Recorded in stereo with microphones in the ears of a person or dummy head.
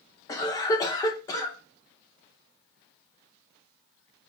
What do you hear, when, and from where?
0.3 s a cough: 15° left (ahead or behind), 0.6 m